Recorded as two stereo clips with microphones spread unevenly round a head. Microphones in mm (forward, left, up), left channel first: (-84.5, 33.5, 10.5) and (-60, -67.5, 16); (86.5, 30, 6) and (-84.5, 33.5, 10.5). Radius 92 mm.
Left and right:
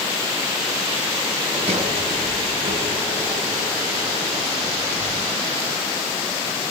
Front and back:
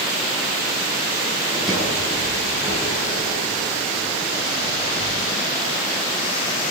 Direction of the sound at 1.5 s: 90° right.